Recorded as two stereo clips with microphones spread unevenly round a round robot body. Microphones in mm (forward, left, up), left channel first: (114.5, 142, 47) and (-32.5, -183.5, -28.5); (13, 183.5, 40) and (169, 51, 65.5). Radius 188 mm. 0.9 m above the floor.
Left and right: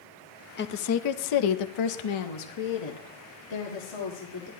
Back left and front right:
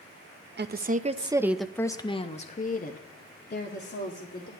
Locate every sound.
0.6 s a woman speaking: straight ahead, 1.0 m; by 4.5 s 110° left, 2.5 m